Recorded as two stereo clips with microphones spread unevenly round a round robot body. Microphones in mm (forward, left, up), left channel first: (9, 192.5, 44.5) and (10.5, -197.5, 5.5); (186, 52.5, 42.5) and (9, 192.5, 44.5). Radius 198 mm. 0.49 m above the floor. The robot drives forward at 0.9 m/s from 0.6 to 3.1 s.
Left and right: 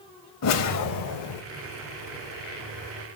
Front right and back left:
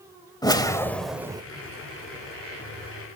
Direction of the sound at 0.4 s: 35° left.